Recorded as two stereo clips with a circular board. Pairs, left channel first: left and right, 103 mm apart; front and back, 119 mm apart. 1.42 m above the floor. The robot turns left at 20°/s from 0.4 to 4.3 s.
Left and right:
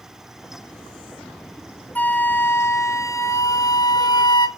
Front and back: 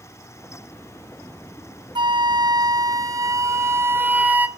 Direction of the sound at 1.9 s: 155° left.